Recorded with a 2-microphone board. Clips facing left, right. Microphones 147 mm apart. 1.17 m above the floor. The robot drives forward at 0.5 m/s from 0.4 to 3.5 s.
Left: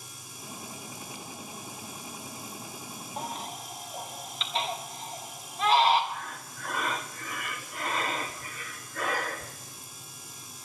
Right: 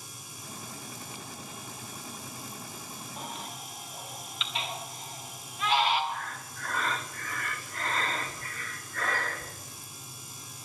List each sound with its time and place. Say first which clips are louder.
3.2 s a baby crying: left 5 dB; 40° left (ahead or behind), 1.8 m; by 6.0 s 35° left (ahead or behind), 1.9 m
6.1 s breathing: right 1 dB; 15° left (ahead or behind), 1.0 m